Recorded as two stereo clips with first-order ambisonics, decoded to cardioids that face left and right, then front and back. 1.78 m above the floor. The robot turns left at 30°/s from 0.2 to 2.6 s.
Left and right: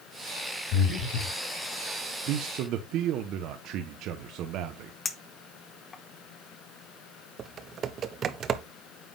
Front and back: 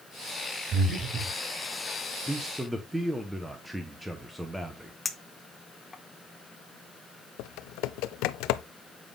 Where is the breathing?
125° left, 5 m; by 1.4 s 105° left, 5 m.